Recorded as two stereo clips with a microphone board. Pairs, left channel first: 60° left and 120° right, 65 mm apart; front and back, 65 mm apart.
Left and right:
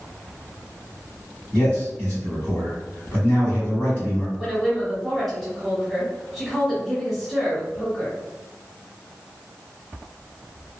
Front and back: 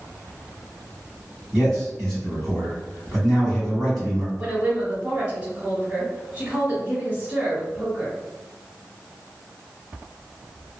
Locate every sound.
1.5 s a man speaking: 65° left, 1.9 m
4.4 s a woman speaking: 150° left, 1.1 m